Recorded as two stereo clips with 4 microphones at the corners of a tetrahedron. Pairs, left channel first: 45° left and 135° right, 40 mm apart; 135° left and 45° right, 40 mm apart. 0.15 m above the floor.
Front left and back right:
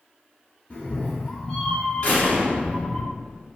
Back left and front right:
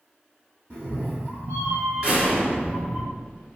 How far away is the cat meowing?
About 1.3 m.